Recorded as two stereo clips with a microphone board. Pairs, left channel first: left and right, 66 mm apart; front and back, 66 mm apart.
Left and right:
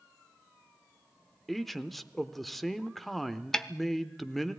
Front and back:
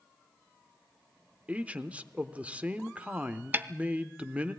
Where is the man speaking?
175° left, 0.9 m.